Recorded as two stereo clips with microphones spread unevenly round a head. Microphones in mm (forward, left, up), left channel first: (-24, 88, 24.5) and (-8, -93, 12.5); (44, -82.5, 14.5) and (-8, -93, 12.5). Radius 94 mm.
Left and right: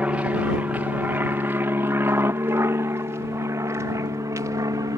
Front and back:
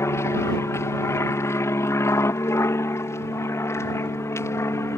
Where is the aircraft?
5° right; by 5.0 s 15° right.